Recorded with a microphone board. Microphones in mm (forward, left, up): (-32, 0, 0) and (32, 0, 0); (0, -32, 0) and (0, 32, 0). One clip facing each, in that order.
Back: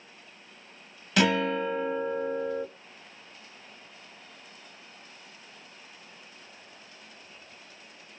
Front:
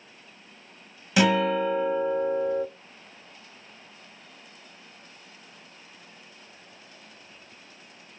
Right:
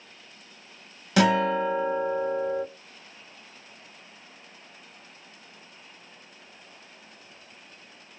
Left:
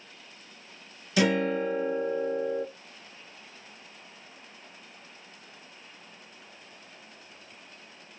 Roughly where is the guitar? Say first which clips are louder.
Front 3 dB, right 4 dB; right.